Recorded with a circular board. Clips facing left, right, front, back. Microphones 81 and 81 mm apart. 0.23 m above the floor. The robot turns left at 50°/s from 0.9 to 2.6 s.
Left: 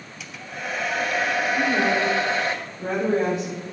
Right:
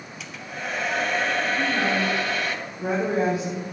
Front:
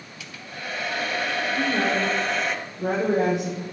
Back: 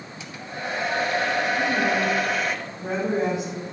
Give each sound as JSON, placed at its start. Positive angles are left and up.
{"t": 0.2, "sound": "a hair dryer", "azimuth_deg": 175, "distance_m": 1.6}
{"t": 1.6, "sound": "a woman speaking", "azimuth_deg": 45, "distance_m": 7.5}